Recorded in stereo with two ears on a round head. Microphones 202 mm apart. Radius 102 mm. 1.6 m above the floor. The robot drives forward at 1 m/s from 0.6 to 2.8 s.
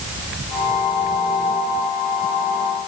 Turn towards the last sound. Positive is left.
No sound to turn to.